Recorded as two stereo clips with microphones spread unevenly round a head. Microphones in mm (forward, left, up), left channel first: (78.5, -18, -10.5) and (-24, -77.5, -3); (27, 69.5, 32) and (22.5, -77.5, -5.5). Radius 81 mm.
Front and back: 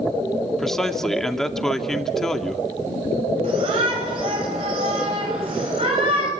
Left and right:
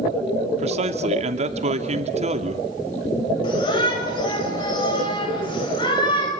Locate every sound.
0.6 s a man speaking: 55° right, 2.5 m
3.4 s a shout: 150° left, 6.5 m